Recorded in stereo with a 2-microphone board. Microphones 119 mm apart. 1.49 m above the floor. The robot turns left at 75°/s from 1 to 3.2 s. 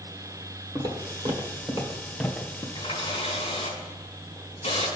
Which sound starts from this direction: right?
Footsteps, at 0.8 s.